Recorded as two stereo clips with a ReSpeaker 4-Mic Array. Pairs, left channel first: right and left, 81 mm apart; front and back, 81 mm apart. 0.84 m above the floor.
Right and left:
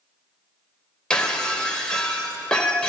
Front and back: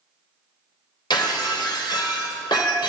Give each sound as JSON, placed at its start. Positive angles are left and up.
{"t": 1.1, "sound": "breaking glass", "azimuth_deg": -10, "distance_m": 2.0}